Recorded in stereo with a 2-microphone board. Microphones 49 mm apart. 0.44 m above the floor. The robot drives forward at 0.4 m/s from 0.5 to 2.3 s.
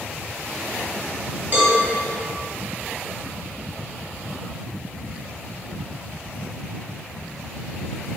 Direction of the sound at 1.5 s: 40° right (ahead or behind).